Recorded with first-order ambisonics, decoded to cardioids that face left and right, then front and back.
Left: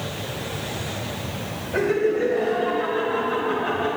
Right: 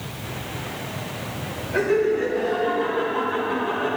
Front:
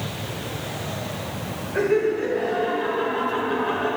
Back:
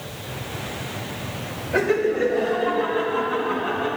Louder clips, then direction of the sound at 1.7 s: Right 1 dB, back 1 dB; 170° left.